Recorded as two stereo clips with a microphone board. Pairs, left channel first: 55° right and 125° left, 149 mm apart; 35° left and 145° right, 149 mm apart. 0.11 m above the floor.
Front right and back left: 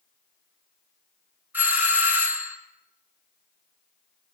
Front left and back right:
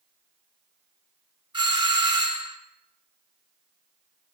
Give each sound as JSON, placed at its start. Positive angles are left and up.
{"t": 1.5, "sound": "a doorbell", "azimuth_deg": -170, "distance_m": 1.8}